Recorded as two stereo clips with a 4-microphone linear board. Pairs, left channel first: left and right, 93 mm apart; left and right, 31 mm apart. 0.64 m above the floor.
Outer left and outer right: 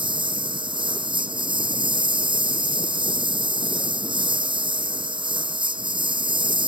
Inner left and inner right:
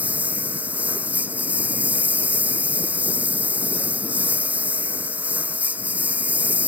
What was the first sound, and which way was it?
A lawn mower, 65° right (ahead or behind).